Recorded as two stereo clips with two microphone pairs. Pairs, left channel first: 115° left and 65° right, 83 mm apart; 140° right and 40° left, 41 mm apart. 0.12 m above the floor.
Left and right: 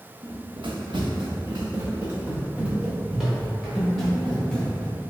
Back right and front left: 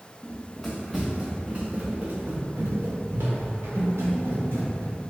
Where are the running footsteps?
70° right, 1.0 m; by 4.9 s 30° left, 2 m.